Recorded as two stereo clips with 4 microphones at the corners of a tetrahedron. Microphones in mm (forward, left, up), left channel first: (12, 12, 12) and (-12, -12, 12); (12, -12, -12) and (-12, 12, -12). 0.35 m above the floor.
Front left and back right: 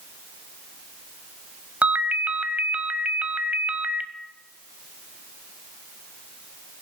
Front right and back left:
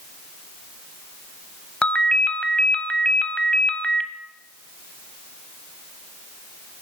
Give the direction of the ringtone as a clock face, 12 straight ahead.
3 o'clock.